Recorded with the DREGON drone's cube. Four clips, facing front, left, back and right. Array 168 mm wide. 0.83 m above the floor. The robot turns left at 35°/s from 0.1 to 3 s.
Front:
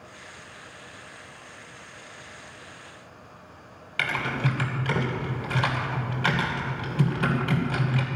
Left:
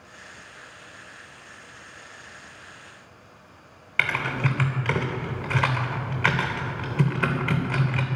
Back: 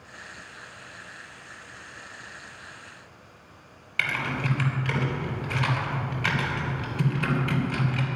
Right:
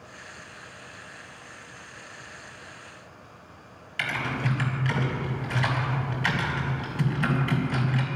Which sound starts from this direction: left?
Typing on a keyboard, at 4.0 s.